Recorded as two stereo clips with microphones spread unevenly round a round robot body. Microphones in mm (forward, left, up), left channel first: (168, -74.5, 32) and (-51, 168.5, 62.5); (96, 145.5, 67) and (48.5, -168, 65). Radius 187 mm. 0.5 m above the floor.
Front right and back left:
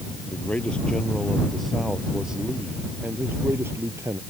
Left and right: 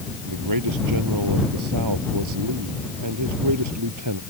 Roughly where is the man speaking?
Behind right.